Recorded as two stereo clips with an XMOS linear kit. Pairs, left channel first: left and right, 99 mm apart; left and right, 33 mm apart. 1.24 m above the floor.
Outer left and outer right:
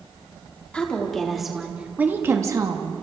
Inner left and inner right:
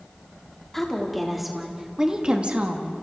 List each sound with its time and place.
0.7 s a woman speaking: 10° left (ahead or behind), 3 m; by 2.9 s 45° right (ahead or behind), 2 m